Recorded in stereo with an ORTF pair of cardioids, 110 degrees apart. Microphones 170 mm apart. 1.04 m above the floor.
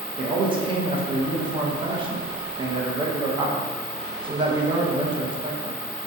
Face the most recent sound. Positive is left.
turn(degrees=-30)